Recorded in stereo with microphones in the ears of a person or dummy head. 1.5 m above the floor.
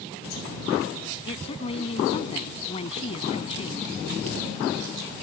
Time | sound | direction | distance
1.3 | a woman speaking | 30° left (ahead or behind) | ?